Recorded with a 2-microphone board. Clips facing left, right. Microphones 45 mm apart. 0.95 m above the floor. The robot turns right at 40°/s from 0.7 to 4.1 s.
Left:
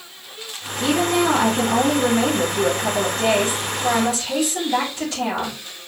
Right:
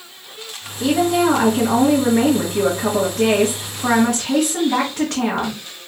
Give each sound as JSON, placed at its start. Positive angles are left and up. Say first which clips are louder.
{"t": 0.8, "sound": "a woman speaking", "louder": "right 2 dB", "azimuth_deg": 165, "distance_m": 2.5}